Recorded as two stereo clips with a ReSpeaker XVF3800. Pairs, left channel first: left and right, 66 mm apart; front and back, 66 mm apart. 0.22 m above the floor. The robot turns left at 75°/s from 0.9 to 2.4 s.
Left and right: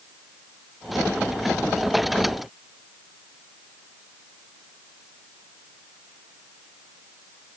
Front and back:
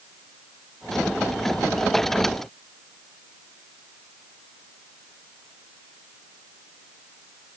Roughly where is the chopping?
No chopping in this recording.